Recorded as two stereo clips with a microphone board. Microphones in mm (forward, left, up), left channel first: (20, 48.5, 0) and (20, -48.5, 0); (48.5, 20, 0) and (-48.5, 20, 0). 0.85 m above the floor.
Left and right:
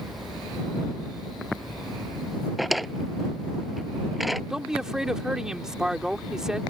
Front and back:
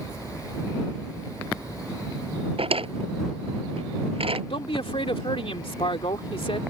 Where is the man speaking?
5° right.